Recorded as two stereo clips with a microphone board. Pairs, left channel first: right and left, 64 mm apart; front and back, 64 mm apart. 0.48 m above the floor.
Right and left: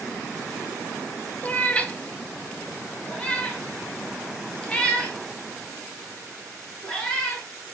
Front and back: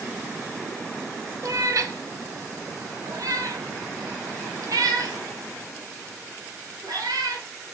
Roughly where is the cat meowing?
Behind.